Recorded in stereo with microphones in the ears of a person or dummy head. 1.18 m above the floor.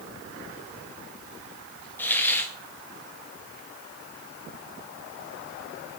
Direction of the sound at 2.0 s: 15° left (ahead or behind).